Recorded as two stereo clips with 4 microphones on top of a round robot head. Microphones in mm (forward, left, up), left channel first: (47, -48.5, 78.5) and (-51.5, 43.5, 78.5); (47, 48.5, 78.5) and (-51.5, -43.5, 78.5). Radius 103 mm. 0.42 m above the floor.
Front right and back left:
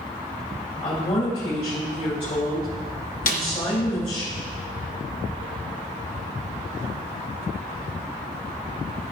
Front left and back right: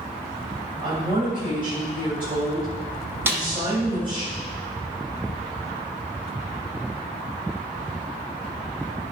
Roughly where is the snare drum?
Ahead right.